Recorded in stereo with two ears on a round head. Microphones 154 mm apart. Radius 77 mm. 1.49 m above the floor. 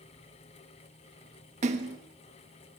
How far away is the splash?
About 1.7 m.